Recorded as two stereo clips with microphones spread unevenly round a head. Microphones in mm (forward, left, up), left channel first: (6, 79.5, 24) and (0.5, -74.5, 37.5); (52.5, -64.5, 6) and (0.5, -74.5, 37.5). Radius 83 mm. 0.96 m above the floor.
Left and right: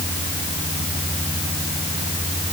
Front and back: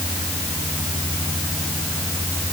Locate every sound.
Only background noise.